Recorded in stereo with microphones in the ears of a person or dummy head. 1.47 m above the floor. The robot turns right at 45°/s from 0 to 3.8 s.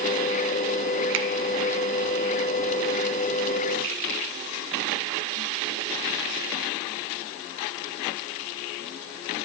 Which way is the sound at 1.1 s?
65° right (ahead or behind).